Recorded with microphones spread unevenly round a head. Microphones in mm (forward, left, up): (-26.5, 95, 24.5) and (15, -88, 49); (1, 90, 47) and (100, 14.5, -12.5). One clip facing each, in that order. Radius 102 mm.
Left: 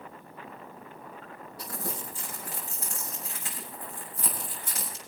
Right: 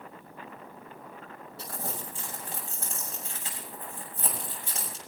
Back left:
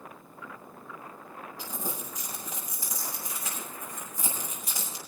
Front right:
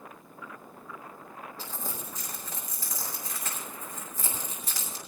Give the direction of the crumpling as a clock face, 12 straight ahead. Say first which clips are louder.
Left 1 dB, back left 4 dB; 5 o'clock.